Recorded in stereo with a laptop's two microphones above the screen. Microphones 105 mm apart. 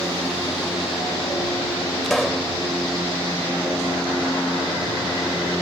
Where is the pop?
5° left (ahead or behind).